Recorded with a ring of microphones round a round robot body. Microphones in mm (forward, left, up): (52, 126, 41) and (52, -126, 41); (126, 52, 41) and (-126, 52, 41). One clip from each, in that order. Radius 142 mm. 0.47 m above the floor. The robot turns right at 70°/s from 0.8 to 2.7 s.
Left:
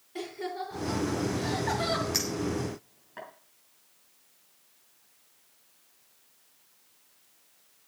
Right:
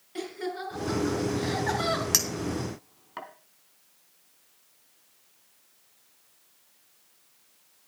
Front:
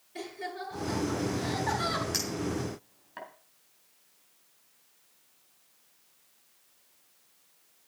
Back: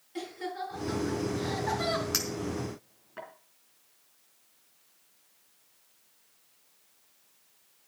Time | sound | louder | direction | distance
0.1 | laughter | right 1 dB, back 1 dB | 125° right | 7 m
2.1 | a clink | right 3 dB, even | 95° right | 4 m